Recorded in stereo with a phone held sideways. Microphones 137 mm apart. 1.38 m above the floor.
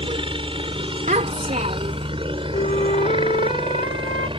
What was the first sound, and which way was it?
A helicopter, 40° right (ahead or behind).